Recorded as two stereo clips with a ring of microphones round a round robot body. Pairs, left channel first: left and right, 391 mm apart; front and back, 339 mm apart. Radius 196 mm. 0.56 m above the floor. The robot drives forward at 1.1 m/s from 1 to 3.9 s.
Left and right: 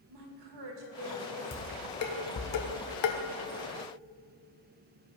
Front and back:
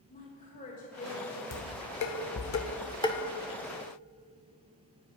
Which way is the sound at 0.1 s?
65° right.